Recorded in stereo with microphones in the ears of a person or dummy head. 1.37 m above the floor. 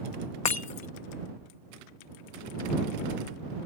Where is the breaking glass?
35° left (ahead or behind).